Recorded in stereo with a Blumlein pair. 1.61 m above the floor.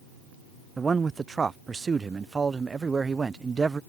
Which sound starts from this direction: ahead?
A man speaking, at 0.8 s.